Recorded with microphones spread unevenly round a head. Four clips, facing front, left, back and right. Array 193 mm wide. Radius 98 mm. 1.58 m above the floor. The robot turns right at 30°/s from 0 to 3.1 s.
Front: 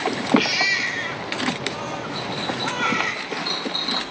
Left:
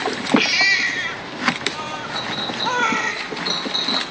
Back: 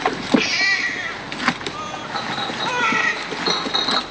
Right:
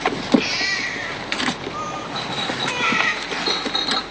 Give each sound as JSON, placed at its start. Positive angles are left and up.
{"t": 0.4, "sound": "a baby crying", "azimuth_deg": 60, "distance_m": 3.0}
{"t": 2.1, "sound": "a clink", "azimuth_deg": 155, "distance_m": 1.6}